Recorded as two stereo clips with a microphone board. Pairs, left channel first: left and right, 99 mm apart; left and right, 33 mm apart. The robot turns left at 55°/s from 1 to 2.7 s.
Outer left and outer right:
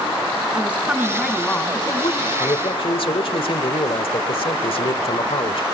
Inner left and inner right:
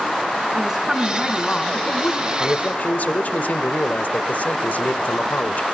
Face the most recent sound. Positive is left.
turn(degrees=65)  # may be behind; listen again after turning